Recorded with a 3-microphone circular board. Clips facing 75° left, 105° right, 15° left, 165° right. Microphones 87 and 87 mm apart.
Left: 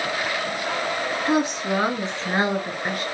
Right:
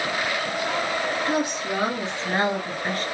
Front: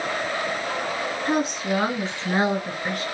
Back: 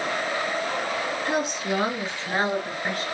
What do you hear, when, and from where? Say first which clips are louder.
1.2 s a woman speaking: left 3 dB, front 4 dB; 25° left, 1.7 m; by 3.0 s 135° left, 1.3 m